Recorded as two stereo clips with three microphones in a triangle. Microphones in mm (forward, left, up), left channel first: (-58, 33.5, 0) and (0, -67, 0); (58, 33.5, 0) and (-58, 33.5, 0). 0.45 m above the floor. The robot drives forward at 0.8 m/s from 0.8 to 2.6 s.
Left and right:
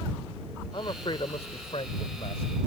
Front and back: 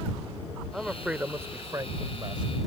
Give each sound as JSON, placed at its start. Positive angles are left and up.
{"t": 0.7, "sound": "a man speaking", "azimuth_deg": 90}